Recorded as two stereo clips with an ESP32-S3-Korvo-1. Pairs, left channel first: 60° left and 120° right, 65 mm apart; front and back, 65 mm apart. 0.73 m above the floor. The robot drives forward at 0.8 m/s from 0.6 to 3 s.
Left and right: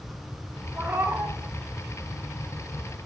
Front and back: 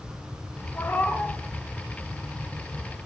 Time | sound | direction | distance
0.8 | a cat meowing | 55° right | 1.0 m